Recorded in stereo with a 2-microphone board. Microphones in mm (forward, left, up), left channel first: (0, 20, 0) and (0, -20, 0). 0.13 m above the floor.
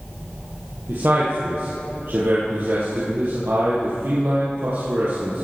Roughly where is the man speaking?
Right.